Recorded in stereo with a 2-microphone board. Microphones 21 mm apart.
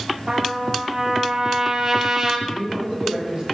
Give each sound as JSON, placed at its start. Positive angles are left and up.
{"t": 0.3, "sound": "a trumpet", "side_deg": -30, "distance_m": 2.5}
{"t": 2.5, "sound": "a man speaking", "side_deg": -45, "distance_m": 8.5}